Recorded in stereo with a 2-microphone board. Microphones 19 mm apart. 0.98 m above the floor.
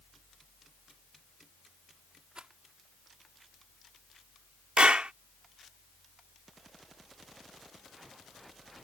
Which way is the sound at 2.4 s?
60° right (ahead or behind).